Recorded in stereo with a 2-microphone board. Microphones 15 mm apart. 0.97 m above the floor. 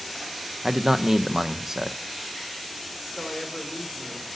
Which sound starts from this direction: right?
A man speaking, at 0.6 s.